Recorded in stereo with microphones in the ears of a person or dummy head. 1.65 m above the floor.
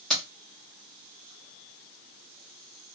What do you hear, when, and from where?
0.1 s keys jangling: centre (ahead or behind), 1.0 m